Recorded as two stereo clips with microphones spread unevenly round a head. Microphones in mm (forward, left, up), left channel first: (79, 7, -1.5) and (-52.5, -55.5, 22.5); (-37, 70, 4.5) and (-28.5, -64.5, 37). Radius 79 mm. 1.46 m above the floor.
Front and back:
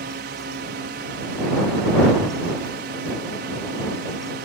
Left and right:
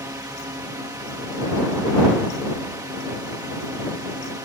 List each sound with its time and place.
0.0 s a drone: 155° right